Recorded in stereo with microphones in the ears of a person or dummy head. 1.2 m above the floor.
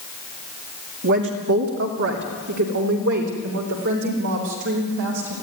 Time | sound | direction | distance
1.0 | a woman speaking | 60° right (ahead or behind) | 2 m